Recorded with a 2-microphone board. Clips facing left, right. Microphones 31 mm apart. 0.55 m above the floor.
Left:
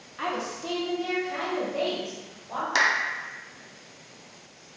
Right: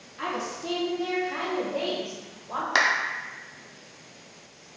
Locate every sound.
0.2 s a woman speaking: 10° left (ahead or behind), 0.7 m; by 2.6 s 30° right (ahead or behind), 1.8 m
2.8 s a clap: 20° right (ahead or behind), 0.6 m